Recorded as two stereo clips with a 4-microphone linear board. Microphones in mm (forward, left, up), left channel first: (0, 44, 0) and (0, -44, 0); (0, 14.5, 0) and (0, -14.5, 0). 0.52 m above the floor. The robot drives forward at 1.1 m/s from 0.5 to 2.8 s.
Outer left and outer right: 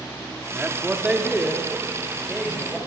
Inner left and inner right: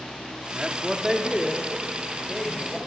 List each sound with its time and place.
0.5 s a man speaking: 15° right (ahead or behind), 0.9 m; by 2.8 s 5° right (ahead or behind), 2.5 m